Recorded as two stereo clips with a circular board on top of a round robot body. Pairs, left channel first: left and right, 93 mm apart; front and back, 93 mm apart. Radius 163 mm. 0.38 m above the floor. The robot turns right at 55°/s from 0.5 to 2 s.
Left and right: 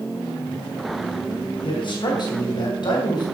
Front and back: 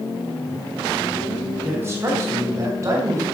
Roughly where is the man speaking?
Left.